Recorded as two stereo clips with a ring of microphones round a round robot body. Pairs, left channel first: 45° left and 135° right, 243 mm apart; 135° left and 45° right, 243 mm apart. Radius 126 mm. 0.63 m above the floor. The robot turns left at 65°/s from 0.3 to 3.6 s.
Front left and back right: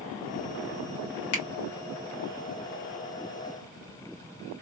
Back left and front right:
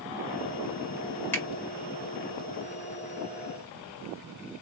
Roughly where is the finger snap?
Ahead left.